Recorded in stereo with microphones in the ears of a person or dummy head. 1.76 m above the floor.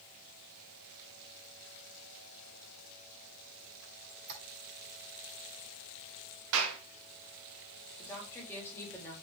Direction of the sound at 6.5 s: 75° right (ahead or behind).